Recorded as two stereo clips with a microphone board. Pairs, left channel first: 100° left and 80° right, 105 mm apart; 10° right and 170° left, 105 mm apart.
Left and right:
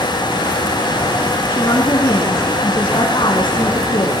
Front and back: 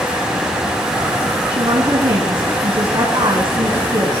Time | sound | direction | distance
1.5 | a woman speaking | 135° left | 3 m